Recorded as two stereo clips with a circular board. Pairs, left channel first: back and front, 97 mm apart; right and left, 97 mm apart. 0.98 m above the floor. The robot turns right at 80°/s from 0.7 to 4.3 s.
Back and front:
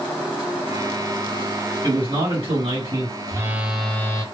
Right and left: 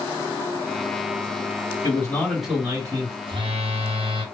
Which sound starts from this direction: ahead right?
A man speaking, at 1.8 s.